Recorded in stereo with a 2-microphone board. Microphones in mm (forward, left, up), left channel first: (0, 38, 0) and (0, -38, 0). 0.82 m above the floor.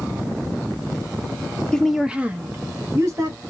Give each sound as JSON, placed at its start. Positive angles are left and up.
{"t": 1.7, "sound": "a woman speaking", "side_deg": 10, "distance_m": 0.6}